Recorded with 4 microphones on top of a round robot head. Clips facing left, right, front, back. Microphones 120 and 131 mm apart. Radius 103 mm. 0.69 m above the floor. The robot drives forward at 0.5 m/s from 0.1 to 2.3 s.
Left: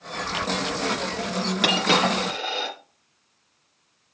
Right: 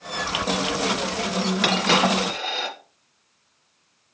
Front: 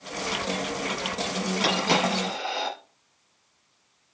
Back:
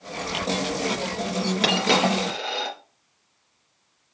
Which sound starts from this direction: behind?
A dropped coin, at 1.6 s.